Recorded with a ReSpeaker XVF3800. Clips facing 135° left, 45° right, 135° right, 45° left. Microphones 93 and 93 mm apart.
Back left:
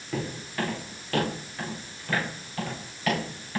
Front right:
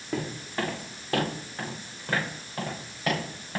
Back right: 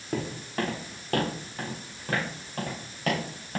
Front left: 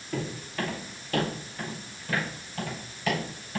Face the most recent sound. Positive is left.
turn(degrees=-105)